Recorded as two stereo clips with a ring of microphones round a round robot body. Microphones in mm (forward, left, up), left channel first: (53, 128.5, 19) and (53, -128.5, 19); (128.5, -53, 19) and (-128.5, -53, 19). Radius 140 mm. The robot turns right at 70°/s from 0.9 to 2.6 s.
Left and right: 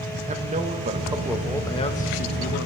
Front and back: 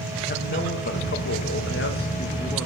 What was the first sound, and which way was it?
A man speaking, 35° right.